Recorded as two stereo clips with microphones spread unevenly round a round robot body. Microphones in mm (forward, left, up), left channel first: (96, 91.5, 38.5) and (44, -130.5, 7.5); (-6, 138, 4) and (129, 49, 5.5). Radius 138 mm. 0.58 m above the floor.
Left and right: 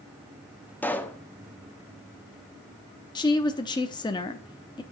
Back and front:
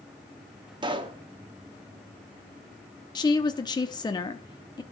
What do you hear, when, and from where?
0.8 s a pop: 10° right, 1.0 m
3.1 s a woman speaking: 140° left, 0.7 m